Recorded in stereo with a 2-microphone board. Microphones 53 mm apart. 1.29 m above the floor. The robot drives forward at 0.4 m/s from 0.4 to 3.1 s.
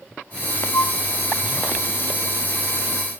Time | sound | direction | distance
0.7 | a flute | 65° left (ahead or behind) | 2.5 m